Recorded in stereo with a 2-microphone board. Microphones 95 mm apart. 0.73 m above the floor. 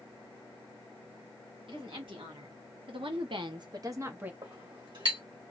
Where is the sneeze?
I don't hear a sneeze.